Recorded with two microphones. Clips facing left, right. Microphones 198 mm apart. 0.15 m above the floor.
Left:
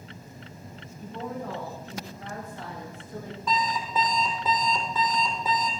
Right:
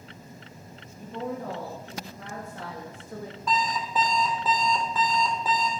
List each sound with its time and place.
1.0 s a woman speaking: 75° right (ahead or behind), 7 m
3.5 s an alarm clock: centre (ahead or behind), 3 m